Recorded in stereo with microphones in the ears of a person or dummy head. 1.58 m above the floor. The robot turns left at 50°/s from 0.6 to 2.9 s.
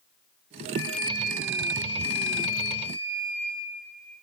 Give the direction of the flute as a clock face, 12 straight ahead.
9 o'clock.